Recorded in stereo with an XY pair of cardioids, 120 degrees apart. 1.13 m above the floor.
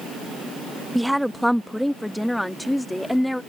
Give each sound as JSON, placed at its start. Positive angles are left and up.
{"t": 0.9, "sound": "a woman speaking", "azimuth_deg": 0}